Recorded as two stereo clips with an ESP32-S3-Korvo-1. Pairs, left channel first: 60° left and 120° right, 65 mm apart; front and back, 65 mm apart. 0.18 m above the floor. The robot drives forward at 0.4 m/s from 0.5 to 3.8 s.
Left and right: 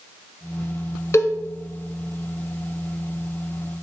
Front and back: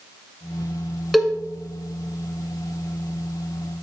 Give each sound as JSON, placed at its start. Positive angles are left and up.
{"t": 1.1, "sound": "a cowbell", "azimuth_deg": 90, "distance_m": 1.0}